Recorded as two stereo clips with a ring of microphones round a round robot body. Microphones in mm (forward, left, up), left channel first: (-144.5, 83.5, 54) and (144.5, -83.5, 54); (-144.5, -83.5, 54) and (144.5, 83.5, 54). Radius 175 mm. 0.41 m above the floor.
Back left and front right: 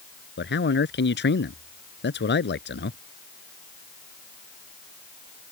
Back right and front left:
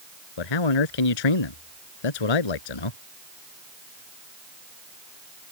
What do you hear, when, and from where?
0.4 s a man speaking: 150° right